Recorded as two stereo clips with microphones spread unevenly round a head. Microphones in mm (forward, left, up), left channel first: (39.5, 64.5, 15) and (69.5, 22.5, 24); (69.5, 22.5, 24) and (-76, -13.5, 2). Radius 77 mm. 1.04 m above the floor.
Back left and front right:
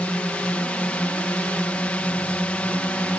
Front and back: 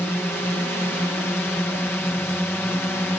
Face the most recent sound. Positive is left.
turn(degrees=95)